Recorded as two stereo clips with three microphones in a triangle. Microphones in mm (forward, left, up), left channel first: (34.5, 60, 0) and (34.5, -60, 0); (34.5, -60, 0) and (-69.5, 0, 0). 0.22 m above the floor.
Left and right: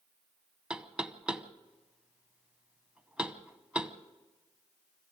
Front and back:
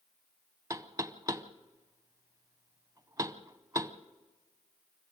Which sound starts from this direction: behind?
Knocking, at 0.7 s.